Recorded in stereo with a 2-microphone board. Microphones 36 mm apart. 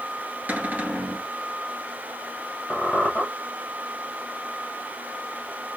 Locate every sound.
0.5 s a cupboard door: 50° right (ahead or behind), 1.4 m
2.7 s a squeak: 35° left (ahead or behind), 1.6 m